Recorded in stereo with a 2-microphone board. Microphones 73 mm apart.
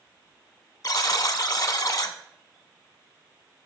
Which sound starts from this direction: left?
A buzzer, at 0.8 s.